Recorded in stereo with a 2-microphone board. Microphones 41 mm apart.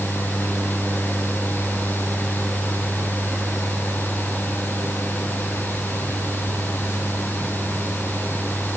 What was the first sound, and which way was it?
Only background noise.